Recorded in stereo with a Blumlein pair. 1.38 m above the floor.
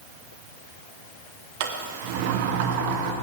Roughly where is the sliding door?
Ahead right.